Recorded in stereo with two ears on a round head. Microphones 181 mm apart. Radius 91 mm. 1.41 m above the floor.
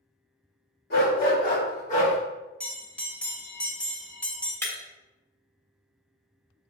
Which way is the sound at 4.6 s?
10° left (ahead or behind).